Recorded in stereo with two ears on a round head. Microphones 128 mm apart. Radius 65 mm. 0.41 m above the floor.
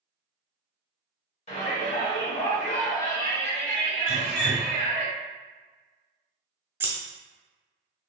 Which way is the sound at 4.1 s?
45° right (ahead or behind).